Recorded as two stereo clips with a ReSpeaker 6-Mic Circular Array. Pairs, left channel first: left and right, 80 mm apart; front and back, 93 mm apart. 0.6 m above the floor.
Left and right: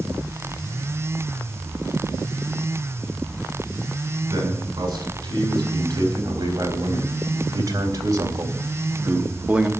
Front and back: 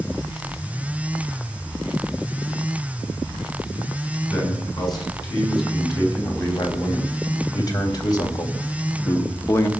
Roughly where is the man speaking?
Ahead right.